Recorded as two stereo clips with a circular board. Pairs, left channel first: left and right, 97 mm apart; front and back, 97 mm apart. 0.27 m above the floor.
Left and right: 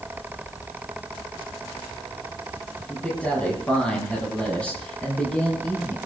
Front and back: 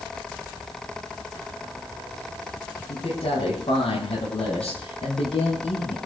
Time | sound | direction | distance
2.9 | a man speaking | 15° left | 10 m